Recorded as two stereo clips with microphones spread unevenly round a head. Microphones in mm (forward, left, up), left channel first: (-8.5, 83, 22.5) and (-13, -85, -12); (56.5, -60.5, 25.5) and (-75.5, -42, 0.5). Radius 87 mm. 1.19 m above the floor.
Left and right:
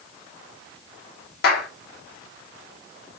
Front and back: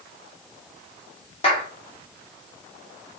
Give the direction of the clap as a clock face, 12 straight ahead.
10 o'clock.